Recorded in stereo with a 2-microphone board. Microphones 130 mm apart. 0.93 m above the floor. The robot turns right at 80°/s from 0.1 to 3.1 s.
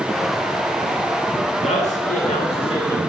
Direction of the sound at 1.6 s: 50° left.